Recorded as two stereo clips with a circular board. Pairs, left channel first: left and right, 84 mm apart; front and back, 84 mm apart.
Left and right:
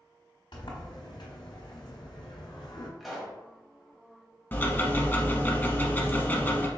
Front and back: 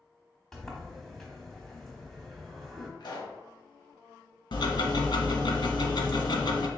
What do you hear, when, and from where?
0.5 s a sliding door: 85° left, 1.0 m
3.0 s a pop: straight ahead, 1.1 m
4.5 s ticking: 25° left, 0.7 m